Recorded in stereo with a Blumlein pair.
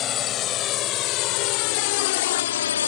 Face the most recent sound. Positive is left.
turn(degrees=65)